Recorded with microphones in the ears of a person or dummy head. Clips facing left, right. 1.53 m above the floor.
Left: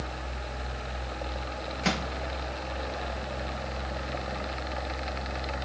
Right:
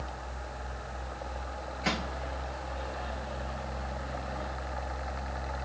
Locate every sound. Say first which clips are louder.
1.8 s a microwave: left 3 dB; 55° left (ahead or behind), 1.0 m